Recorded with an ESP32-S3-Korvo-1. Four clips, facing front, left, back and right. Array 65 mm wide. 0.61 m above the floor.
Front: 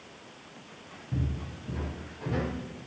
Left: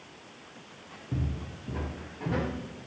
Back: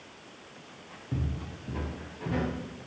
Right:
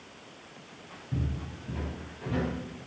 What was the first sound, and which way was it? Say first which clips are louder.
Footsteps: even, front 1 dB; 130° left.